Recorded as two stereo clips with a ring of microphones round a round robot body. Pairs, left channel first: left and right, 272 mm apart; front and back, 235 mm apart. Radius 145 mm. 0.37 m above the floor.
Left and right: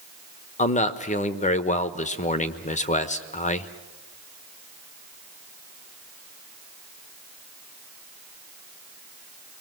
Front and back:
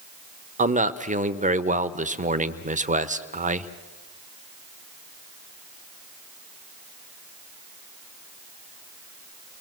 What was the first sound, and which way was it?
A man speaking, 140° left.